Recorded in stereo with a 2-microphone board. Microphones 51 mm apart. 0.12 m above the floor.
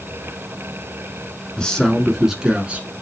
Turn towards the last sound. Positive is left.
turn(degrees=-30)  # may be behind; listen again after turning